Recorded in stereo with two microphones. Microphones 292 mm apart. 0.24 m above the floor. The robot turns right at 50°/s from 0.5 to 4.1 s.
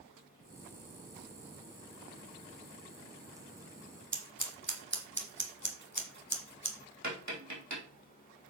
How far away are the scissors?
About 1.5 m.